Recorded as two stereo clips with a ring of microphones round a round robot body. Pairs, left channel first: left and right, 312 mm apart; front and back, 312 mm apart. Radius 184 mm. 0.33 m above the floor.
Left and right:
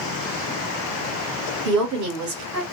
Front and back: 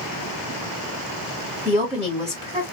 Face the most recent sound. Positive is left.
turn(degrees=-100)